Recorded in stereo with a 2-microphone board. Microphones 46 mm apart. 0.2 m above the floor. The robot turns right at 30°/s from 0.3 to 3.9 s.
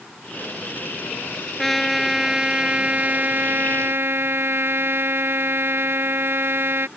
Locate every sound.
1.6 s a trumpet: 175° left; by 6.9 s 120° right